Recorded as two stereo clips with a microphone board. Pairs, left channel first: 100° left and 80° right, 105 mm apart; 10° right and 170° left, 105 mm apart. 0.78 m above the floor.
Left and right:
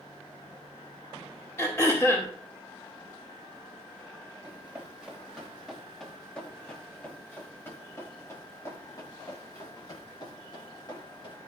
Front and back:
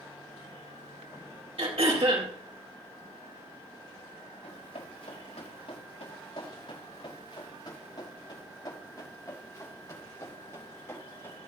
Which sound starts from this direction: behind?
Throat clearing, at 1.6 s.